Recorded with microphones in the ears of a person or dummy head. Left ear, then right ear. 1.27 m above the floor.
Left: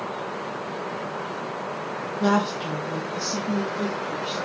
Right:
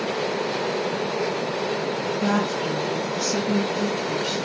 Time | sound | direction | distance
2.2 | a woman speaking | 30° left (ahead or behind) | 0.9 m